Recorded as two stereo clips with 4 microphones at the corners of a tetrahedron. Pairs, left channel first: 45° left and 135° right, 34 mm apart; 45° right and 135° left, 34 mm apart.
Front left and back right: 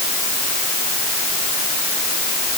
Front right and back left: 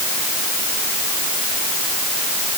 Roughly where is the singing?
No singing in this recording.